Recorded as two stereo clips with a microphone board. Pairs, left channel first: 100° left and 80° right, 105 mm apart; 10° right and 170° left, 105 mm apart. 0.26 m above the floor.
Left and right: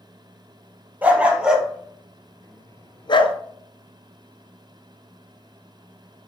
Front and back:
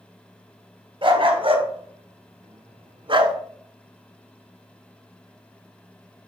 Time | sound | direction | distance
1.0 | a dog barking | 155° right | 1.8 m